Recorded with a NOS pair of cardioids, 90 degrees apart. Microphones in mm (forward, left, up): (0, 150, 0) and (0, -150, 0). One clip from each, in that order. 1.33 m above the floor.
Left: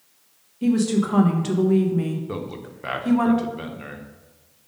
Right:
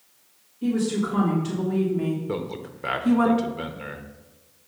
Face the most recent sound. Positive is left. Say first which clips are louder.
# right 2 dB
turn(degrees=-5)